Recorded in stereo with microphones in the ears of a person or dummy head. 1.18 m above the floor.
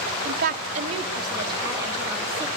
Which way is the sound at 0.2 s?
50° right (ahead or behind).